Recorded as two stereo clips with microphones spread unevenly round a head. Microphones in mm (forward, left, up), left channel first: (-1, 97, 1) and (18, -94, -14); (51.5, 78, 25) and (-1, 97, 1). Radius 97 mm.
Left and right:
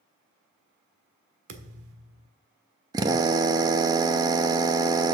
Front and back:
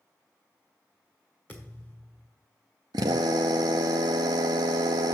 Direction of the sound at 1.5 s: 85° right.